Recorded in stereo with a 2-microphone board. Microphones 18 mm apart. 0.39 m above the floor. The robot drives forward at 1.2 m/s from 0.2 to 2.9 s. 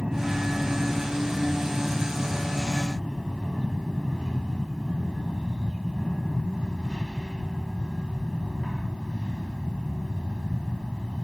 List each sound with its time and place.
0.0 s an aircraft: 45° right (ahead or behind)